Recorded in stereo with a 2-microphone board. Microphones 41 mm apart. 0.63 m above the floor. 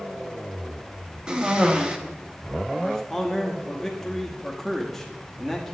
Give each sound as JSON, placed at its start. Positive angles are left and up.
{"t": 1.3, "sound": "a cough", "side_deg": -20, "distance_m": 1.0}
{"t": 2.8, "sound": "a man speaking", "side_deg": 10, "distance_m": 0.8}